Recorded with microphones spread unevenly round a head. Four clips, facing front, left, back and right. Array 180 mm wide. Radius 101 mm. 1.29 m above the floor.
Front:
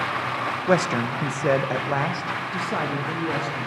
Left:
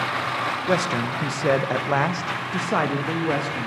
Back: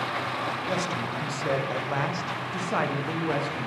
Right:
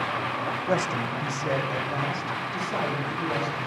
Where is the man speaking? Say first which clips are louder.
Left 3 dB, front 7 dB; 20° left, 1.1 m; by 3.7 s 95° left, 2.5 m.